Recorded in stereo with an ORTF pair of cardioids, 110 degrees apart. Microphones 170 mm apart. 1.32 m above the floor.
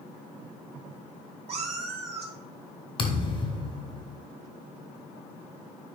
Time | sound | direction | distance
1.5 | a cat meowing | 40° right | 3 m
3.0 | a thud | 35° left | 2.5 m